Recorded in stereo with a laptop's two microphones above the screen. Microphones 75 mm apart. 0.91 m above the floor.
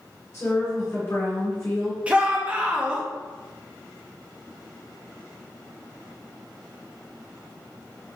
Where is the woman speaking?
40° left (ahead or behind), 2.0 m.